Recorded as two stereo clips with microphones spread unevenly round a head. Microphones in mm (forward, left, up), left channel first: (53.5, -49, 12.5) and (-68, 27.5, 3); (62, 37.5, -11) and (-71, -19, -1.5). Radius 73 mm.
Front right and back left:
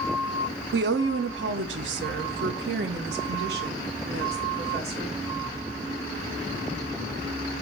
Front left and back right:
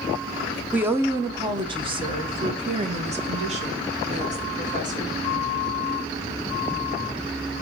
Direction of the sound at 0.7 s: 125° left.